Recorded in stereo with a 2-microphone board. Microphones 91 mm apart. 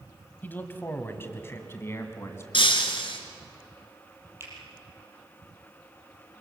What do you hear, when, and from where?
0.4 s a man speaking: 20° left (ahead or behind), 1.4 m; by 2.4 s 30° left (ahead or behind), 2.5 m
2.5 s breaking glass: 70° left (ahead or behind), 2 m
4.4 s a finger snap: 30° right (ahead or behind), 5.5 m